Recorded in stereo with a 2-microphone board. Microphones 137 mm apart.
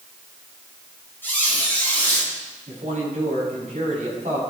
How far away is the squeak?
About 6.5 m.